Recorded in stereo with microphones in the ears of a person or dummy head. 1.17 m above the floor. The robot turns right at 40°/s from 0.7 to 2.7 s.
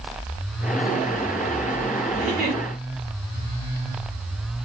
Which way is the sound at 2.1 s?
5° left (ahead or behind).